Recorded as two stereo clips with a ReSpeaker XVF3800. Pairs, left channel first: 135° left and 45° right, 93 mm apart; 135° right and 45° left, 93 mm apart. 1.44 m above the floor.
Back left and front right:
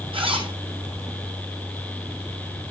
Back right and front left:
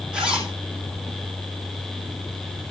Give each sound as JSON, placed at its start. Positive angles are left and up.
{"t": 0.1, "sound": "a zipper", "azimuth_deg": -30, "distance_m": 8.0}